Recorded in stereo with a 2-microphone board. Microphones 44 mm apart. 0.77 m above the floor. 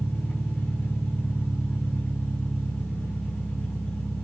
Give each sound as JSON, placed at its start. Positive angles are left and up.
{"t": 0.0, "sound": "an engine running", "side_deg": 40, "distance_m": 3.0}